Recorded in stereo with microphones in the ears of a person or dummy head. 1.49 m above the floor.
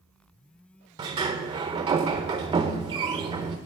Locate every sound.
1.0 s a sliding door: 25° right (ahead or behind), 0.7 m